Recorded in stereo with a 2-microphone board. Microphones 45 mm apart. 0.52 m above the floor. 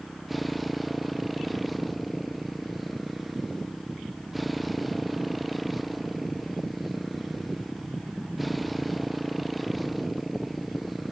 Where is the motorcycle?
Centre (ahead or behind).